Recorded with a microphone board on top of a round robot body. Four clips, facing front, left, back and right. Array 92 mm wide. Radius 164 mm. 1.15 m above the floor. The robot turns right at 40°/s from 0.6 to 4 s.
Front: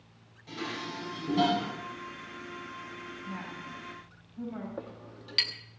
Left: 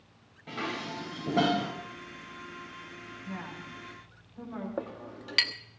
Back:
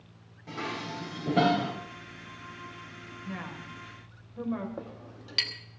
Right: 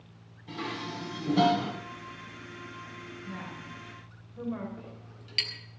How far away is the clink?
About 1.1 m.